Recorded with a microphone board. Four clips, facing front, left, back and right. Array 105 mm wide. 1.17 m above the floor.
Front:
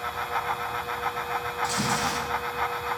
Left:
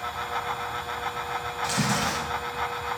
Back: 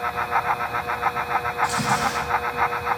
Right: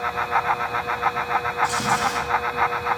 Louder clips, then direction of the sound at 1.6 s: Right 1 dB, back 2 dB; 100° left.